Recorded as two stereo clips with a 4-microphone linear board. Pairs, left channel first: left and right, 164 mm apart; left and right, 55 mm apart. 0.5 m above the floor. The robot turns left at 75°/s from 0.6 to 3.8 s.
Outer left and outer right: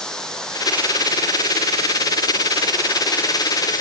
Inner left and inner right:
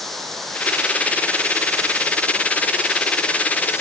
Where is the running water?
5° left; by 3.8 s 125° left.